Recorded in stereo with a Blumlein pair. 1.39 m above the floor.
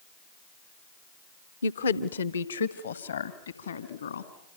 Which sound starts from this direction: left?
A woman speaking, at 1.6 s.